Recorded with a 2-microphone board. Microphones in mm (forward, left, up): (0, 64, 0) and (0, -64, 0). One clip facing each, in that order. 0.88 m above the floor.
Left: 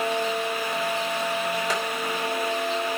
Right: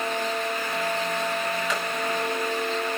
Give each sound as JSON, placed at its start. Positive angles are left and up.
{"t": 1.7, "sound": "tapping", "side_deg": 40, "distance_m": 4.0}